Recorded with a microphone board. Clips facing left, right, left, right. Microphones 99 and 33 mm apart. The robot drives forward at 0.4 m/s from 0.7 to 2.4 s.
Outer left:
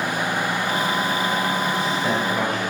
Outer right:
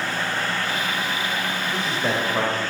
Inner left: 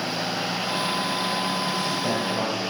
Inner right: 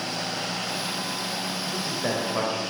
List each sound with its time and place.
1.7 s a man speaking: 25° right (ahead or behind), 2.0 m